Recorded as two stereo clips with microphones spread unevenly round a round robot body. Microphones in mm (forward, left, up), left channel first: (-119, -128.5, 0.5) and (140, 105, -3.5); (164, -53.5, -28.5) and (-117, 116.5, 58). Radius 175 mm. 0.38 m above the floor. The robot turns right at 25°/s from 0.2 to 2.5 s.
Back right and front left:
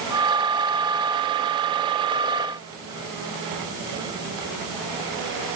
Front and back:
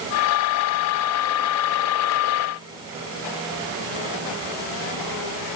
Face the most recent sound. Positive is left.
No sound to turn to.